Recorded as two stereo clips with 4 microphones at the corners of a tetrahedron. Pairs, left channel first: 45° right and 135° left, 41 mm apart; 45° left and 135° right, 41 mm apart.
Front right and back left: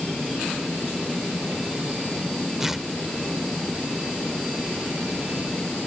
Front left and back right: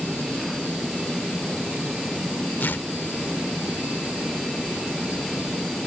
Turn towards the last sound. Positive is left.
turn(degrees=55)